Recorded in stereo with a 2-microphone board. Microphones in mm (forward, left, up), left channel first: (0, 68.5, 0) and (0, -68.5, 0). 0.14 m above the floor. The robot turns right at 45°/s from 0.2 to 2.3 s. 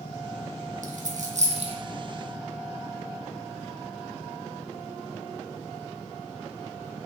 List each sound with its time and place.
0.8 s a dropped coin: 80° right, 1.3 m; by 1.7 s 50° right (ahead or behind), 1.3 m